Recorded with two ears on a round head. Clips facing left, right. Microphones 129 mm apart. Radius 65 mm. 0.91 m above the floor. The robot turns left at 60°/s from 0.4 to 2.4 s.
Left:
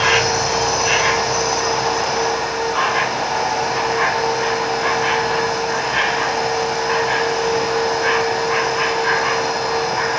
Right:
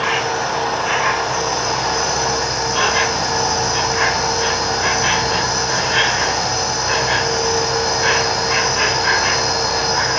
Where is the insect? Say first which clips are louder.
Left 2 dB; 70° left, 1.1 m; by 10.2 s 50° right, 1.1 m.